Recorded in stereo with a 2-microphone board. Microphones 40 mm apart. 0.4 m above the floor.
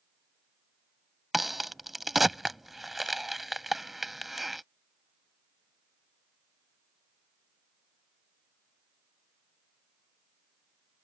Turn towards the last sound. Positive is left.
turn(degrees=-5)  # may be behind; listen again after turning